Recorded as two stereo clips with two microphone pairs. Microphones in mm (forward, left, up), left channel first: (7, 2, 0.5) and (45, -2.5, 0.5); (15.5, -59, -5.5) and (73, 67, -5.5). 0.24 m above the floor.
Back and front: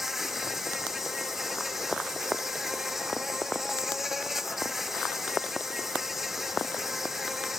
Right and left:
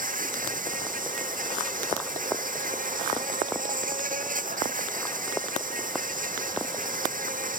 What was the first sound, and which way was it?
An insect, 80° left.